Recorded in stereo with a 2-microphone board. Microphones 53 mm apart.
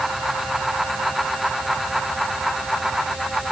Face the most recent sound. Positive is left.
No sound to turn to.